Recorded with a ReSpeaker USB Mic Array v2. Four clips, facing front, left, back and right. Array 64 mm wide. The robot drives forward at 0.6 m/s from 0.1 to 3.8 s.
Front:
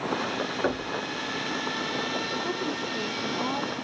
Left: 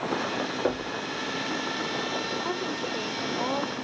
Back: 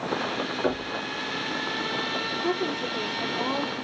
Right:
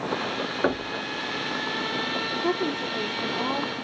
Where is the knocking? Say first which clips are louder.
Right 4 dB, back 1 dB; 80° right, 3.5 m; by 0.9 s 85° right, 3.5 m.